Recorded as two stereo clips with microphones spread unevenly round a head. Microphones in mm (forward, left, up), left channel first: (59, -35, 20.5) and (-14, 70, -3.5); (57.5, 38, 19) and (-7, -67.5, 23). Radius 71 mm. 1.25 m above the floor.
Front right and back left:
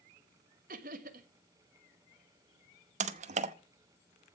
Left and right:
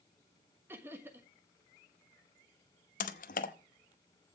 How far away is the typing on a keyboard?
About 0.9 m.